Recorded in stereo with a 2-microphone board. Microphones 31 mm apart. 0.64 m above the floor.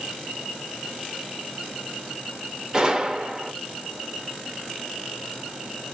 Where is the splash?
I don't hear a splash.